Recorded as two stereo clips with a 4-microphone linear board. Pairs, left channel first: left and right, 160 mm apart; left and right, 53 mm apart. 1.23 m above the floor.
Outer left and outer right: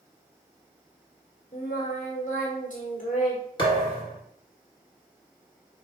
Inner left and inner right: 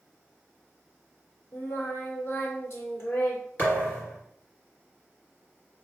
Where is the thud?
30° left (ahead or behind), 1.9 m.